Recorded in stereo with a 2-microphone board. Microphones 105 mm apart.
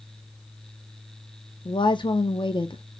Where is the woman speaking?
50° left (ahead or behind), 0.5 m.